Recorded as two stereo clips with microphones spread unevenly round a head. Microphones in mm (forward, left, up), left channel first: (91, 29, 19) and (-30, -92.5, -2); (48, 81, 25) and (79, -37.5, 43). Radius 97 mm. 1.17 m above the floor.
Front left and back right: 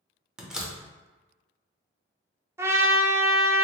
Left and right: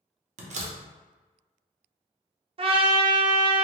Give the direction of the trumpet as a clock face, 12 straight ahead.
3 o'clock.